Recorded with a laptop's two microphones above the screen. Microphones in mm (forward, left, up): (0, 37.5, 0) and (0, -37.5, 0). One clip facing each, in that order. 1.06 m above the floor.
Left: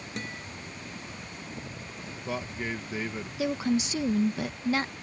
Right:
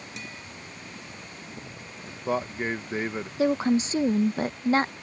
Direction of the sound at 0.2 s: 45° left (ahead or behind).